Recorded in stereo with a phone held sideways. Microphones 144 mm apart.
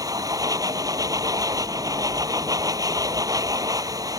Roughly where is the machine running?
Right.